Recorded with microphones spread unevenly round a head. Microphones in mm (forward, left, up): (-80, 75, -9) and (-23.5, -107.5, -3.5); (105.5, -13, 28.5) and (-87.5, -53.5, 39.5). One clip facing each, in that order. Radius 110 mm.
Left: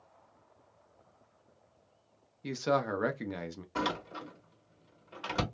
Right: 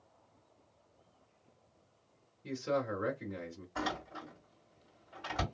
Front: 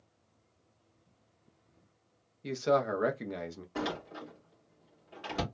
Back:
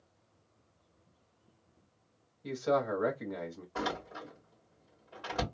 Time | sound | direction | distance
2.4 | a man speaking | 75° left | 0.6 m
3.8 | a door slam | 85° left | 2.0 m